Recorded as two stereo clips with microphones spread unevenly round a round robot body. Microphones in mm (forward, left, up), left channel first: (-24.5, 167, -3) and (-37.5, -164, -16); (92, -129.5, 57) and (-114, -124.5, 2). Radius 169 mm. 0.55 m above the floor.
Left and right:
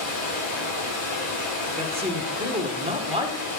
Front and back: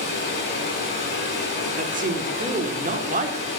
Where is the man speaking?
160° right, 1.6 m.